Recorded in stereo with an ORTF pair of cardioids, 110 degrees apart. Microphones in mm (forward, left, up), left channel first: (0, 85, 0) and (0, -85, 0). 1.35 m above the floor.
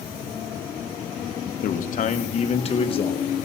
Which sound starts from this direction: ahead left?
A man speaking, at 1.6 s.